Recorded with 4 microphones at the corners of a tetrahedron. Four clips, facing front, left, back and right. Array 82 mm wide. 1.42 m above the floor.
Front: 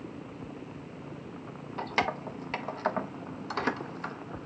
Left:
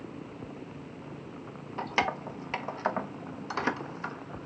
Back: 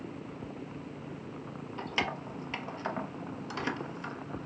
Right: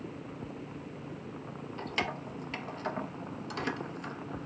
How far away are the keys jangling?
About 1.0 m.